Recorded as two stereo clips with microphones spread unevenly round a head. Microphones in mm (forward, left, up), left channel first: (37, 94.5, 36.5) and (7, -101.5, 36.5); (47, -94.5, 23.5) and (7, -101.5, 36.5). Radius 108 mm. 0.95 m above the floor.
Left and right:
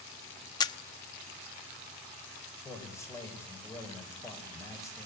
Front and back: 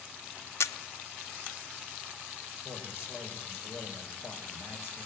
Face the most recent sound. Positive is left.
turn(degrees=5)